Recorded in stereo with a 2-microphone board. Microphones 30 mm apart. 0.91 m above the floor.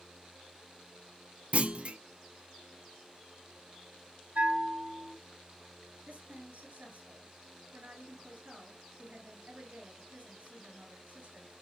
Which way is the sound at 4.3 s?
80° right.